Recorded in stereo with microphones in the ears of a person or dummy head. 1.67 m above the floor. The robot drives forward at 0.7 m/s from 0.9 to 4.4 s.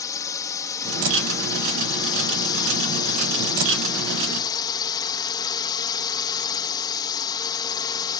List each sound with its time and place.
0.0 s a drone: 20° left (ahead or behind); by 8.2 s 25° left (ahead or behind)